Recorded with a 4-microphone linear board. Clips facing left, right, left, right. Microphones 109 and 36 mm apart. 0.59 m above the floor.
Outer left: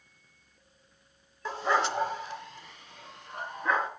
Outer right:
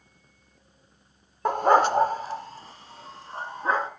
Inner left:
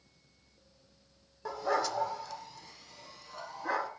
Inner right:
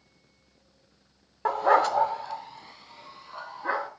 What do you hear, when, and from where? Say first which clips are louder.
1.4 s a dog barking: outer right 9 dB, inner right 10 dB; 55° right (ahead or behind), 0.5 m; by 3.9 s 30° right (ahead or behind), 2.5 m